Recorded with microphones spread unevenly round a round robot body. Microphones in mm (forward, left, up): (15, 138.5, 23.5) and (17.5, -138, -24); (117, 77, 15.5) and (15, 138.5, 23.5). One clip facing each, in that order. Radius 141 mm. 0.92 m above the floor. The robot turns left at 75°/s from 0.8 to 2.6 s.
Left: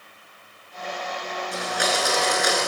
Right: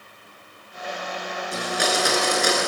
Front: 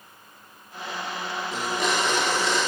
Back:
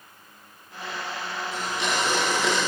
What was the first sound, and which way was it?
A blender, 80° right.